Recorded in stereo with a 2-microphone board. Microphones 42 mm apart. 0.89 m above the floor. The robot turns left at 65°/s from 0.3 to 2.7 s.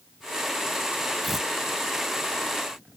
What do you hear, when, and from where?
1.2 s tearing paper: 5° right (ahead or behind); by 1.5 s 20° right (ahead or behind)